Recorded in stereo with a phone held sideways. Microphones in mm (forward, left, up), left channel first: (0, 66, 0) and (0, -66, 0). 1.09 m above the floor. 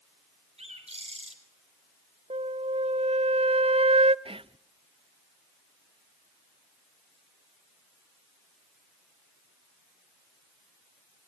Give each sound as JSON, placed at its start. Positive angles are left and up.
{"t": 0.6, "sound": "a bird", "side_deg": -50, "distance_m": 4.0}
{"t": 2.3, "sound": "a flute", "side_deg": -50, "distance_m": 0.6}
{"t": 4.2, "sound": "whispering", "side_deg": -45, "distance_m": 0.6}